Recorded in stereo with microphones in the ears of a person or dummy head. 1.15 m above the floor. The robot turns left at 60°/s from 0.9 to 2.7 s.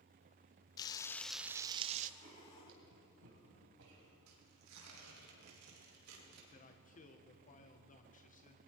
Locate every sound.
0.8 s frying: 25° left, 0.6 m; by 2.1 s 50° right, 0.6 m
2.2 s writing: 65° right (ahead or behind), 2.5 m; by 4.2 s 75° right (ahead or behind), 2.5 m
4.3 s tearing paper: 85° right, 2.5 m
6.5 s a man speaking: 35° left (ahead or behind), 1.0 m